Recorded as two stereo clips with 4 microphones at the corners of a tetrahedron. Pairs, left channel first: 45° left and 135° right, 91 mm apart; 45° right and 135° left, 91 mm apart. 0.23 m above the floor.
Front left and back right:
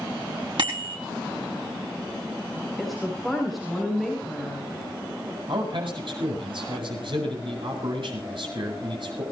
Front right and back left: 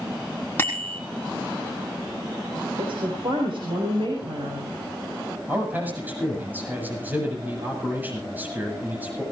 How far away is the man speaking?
About 8.5 m.